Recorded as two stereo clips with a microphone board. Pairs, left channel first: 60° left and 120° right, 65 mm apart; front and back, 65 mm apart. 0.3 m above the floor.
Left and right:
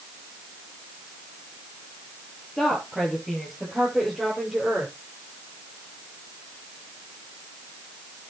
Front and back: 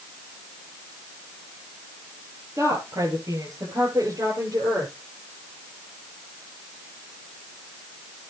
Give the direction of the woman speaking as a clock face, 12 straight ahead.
7 o'clock.